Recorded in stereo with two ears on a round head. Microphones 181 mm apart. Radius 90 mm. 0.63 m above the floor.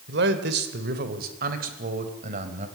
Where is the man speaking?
60° right (ahead or behind), 2.5 m; by 2.7 s 40° right (ahead or behind), 3.5 m.